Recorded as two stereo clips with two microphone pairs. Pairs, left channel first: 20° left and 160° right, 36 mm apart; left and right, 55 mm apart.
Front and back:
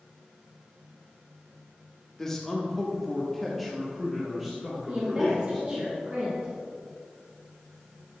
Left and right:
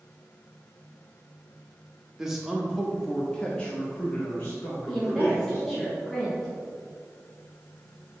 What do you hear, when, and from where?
2.2 s a man speaking: 25° right, 1.1 m; by 5.7 s 120° left, 1.8 m
4.9 s a woman speaking: 170° left, 1.5 m